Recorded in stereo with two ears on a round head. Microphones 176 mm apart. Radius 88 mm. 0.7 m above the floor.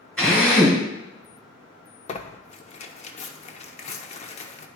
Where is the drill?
5° left (ahead or behind), 3.5 m.